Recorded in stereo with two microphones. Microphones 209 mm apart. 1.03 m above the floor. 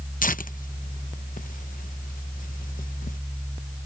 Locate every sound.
0.2 s tearing paper: 40° left (ahead or behind)